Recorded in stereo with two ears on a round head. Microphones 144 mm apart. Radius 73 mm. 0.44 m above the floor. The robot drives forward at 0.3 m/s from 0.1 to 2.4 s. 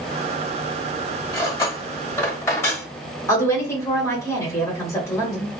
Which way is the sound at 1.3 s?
25° left (ahead or behind).